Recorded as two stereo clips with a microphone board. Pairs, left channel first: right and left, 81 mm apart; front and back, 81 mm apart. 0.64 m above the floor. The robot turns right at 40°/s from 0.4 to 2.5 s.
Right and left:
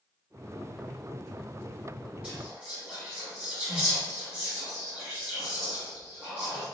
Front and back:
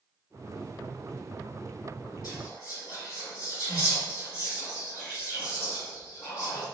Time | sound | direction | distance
2.2 | whispering | 25° left | 1.3 m